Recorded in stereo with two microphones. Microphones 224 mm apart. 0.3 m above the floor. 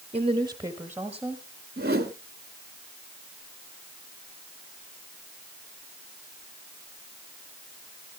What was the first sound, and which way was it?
A woman speaking, 30° right (ahead or behind).